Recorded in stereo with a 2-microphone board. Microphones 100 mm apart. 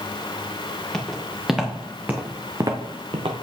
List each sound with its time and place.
0.9 s footsteps: 5° left (ahead or behind), 2.5 m; by 3.3 s 65° right (ahead or behind), 1.4 m